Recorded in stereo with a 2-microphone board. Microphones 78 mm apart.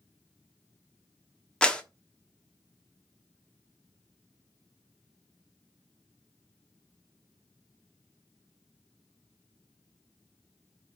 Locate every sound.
1.6 s a clap: 10° left (ahead or behind), 0.9 m